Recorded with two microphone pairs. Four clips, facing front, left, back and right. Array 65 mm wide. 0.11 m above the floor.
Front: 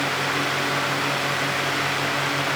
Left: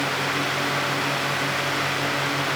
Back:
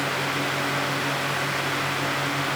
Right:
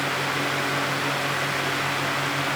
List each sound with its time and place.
Only background noise.